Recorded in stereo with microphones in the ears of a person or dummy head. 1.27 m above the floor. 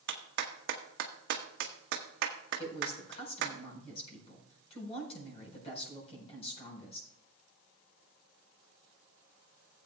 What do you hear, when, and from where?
0.1 s a clap: 60° right (ahead or behind), 1.1 m
2.6 s a woman speaking: 35° left (ahead or behind), 4.5 m